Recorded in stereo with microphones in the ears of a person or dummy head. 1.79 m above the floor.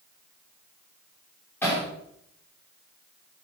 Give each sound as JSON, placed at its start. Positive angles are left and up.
{"t": 1.6, "sound": "hammering", "side_deg": 15, "distance_m": 5.5}